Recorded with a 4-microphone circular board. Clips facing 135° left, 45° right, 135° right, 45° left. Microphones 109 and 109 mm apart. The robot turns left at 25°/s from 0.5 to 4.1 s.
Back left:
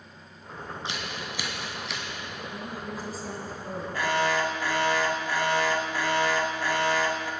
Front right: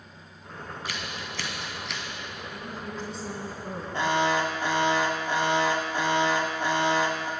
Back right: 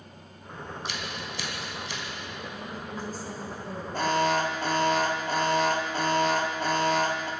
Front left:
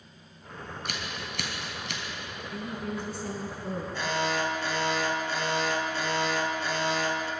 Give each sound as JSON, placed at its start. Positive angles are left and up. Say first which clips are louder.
{"t": 0.8, "sound": "scissors", "louder": "back left 1 dB, even", "azimuth_deg": 70, "distance_m": 2.5}
{"t": 2.5, "sound": "a woman speaking", "louder": "back left 1 dB, front left 7 dB", "azimuth_deg": 65, "distance_m": 3.0}
{"t": 3.9, "sound": "an alarm", "louder": "front right 1 dB, back right 6 dB", "azimuth_deg": -105, "distance_m": 1.4}